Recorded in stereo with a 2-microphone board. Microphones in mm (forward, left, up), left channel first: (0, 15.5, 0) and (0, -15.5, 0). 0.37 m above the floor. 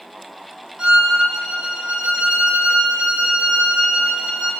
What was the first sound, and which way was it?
A violin, 30° right (ahead or behind).